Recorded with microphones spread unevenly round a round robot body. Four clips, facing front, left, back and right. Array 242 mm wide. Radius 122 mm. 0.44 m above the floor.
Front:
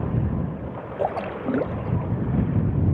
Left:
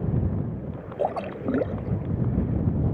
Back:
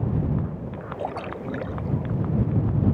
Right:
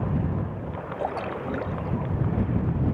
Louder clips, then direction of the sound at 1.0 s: Left 3 dB, front 6 dB; 35° left.